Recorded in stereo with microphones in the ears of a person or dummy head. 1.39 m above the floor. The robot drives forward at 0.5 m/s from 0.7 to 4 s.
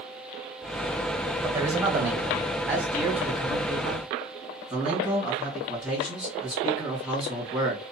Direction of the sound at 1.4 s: 20° right (ahead or behind).